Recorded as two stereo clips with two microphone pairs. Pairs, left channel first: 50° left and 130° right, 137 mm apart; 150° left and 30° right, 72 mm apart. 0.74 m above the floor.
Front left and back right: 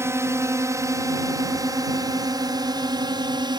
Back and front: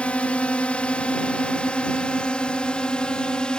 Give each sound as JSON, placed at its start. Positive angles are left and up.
{"t": 0.0, "sound": "a drone", "azimuth_deg": -165}